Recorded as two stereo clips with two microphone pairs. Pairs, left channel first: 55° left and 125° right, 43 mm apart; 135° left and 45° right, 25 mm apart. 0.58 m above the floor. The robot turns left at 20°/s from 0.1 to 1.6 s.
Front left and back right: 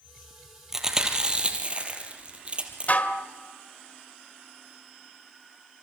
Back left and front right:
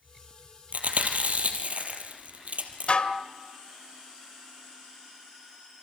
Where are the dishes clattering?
100° left, 1.6 m.